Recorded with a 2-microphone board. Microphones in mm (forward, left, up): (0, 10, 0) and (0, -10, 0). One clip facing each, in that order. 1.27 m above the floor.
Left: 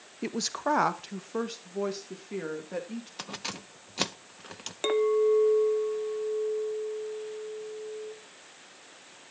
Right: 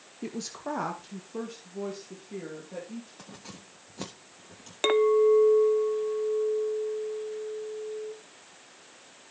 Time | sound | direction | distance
0.2 | a woman speaking | 35° left (ahead or behind) | 0.6 m
3.2 | keys jangling | 60° left (ahead or behind) | 0.6 m
4.8 | a clink | 30° right (ahead or behind) | 0.5 m